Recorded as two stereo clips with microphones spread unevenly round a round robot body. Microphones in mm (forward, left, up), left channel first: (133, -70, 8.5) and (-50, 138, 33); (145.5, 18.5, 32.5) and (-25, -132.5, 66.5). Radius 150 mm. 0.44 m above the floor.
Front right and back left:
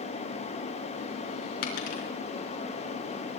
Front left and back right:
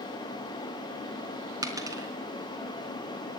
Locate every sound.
1.6 s a dropped coin: 60° right, 3.5 m